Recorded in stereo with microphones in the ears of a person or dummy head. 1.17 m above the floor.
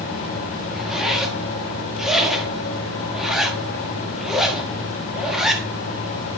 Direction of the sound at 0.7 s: Centre (ahead or behind).